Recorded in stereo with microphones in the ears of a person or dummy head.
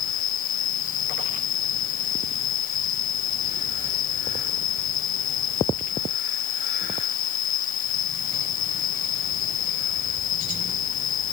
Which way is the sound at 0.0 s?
50° left (ahead or behind).